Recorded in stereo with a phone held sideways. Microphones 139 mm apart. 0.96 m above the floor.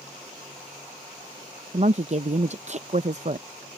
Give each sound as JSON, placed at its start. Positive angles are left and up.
{"t": 1.7, "sound": "a woman speaking", "side_deg": -50}